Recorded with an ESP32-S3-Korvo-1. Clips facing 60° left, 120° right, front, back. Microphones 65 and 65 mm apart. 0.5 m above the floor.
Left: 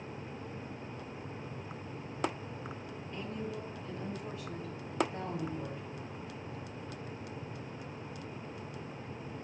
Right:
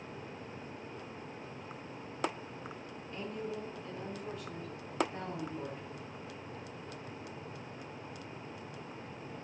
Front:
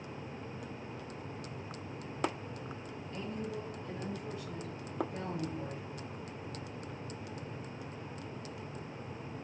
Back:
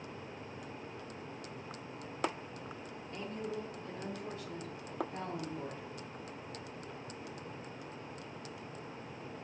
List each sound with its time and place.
3.1 s a woman speaking: 140° left, 1.8 m